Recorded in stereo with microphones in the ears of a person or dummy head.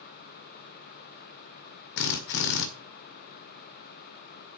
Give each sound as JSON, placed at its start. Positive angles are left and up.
{"t": 2.0, "sound": "a drill", "side_deg": 65, "distance_m": 1.8}